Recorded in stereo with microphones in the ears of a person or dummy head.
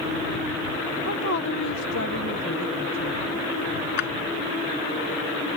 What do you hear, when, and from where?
1.1 s a woman speaking: 60° left (ahead or behind)
4.0 s a drawer: 55° left (ahead or behind)